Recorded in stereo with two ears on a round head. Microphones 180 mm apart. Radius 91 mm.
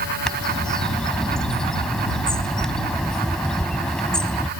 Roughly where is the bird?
Centre.